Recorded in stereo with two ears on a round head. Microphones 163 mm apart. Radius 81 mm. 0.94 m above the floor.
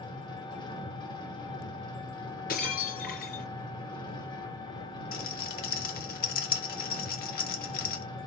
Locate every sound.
0.0 s an engine running: 25° left (ahead or behind), 2.5 m
2.5 s breaking glass: 50° left (ahead or behind), 3.5 m
5.1 s a rattle: 50° left (ahead or behind), 1.9 m